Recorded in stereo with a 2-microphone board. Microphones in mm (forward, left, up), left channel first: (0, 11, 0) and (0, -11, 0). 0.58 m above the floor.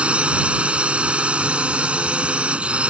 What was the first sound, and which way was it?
A drone, 60° right (ahead or behind).